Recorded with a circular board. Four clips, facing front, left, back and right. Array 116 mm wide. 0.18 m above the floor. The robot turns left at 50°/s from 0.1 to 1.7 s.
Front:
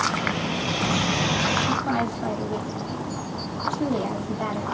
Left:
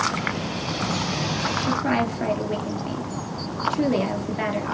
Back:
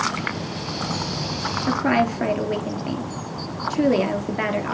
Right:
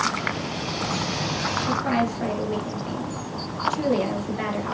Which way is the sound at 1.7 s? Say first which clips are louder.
Even, back 4 dB; 170° left.